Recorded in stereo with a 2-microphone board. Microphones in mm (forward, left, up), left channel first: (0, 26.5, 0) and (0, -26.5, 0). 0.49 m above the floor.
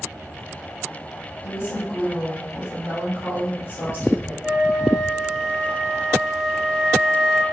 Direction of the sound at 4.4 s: 10° right (ahead or behind).